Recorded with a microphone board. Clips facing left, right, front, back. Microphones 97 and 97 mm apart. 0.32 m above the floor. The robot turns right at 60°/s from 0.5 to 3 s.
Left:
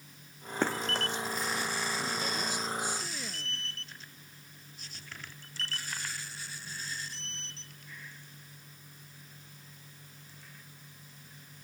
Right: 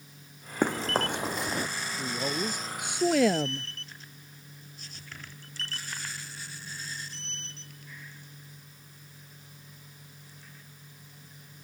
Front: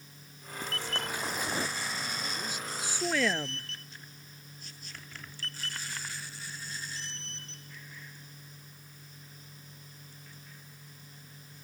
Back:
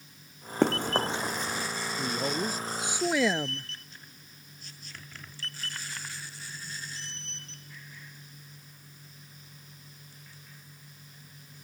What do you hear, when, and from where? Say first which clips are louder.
0.6 s running footsteps: right 4 dB, back 12 dB; 170° right; by 1.7 s 40° right
2.0 s a woman speaking: right 3 dB, back 8 dB; 165° right; by 3.7 s 100° right